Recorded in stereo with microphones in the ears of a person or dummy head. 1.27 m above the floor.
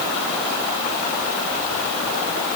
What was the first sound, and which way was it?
Only background noise.